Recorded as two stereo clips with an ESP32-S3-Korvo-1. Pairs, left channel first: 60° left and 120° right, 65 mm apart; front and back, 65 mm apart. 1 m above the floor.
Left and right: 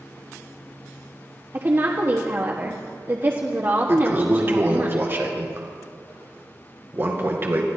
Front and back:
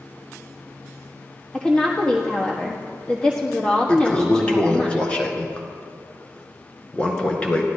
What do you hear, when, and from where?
1.5 s a woman speaking: 75° right, 1.3 m
3.9 s a toilet flushing: 70° right, 2 m